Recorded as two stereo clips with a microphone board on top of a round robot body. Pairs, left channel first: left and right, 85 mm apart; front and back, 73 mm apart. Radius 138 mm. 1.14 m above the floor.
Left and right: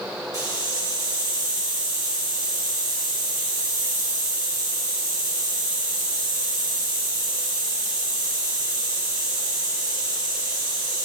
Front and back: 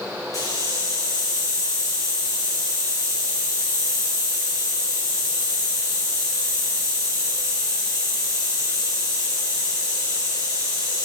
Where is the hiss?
40° right, 3 m.